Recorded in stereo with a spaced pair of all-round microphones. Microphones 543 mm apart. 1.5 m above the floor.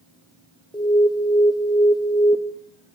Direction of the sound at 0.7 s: 10° left (ahead or behind).